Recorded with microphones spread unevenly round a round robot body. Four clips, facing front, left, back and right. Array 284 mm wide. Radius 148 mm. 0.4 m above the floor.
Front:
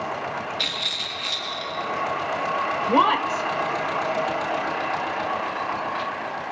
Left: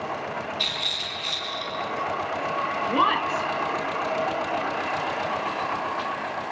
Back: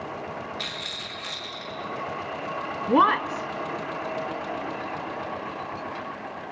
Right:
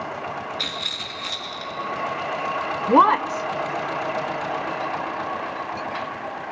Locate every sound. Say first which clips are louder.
0.6 s a rattle: even, front 4 dB; 85° right, 6 m
2.9 s a woman speaking: right 8 dB, even; 95° right, 1.2 m